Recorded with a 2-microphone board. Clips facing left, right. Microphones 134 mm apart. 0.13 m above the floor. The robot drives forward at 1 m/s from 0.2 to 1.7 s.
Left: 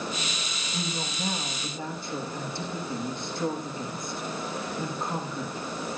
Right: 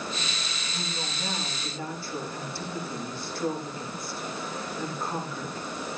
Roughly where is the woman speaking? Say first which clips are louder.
Left 4 dB; left.